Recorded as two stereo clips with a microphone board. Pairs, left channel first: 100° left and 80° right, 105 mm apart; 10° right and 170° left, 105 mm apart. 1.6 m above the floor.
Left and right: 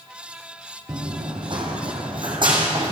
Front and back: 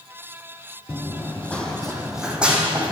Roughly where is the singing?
I don't hear singing.